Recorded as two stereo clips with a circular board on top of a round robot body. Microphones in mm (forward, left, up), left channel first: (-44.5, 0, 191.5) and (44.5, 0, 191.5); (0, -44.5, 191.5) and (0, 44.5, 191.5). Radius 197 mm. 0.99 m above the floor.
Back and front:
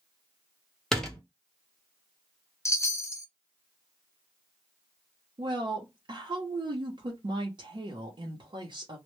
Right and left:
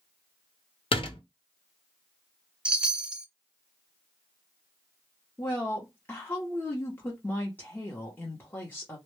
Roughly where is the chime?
Behind.